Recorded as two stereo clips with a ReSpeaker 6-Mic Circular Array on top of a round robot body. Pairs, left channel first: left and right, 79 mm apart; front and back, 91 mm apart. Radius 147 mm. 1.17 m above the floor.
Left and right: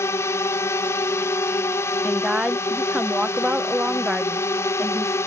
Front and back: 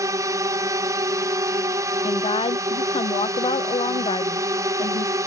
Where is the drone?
135° left.